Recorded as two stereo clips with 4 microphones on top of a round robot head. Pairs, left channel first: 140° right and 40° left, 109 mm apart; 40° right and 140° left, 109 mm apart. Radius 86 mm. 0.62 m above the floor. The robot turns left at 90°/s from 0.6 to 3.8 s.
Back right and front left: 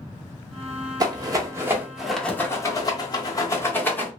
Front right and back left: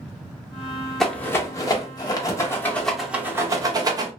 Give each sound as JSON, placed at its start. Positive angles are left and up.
{"t": 1.0, "sound": "a rattle", "azimuth_deg": 45, "distance_m": 1.1}